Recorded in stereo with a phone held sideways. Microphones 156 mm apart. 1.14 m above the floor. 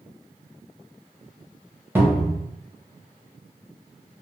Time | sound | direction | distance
1.9 | a cupboard door | 10° right (ahead or behind) | 0.8 m